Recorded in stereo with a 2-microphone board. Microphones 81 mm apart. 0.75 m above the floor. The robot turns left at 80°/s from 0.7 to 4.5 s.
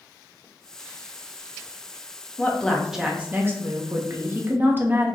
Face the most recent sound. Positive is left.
turn(degrees=-130)